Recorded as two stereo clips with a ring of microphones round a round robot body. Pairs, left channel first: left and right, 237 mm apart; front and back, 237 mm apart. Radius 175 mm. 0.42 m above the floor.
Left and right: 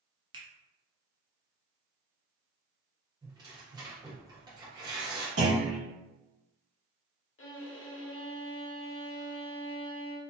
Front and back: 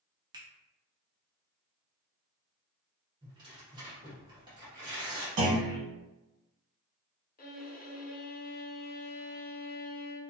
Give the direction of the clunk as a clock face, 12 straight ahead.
5 o'clock.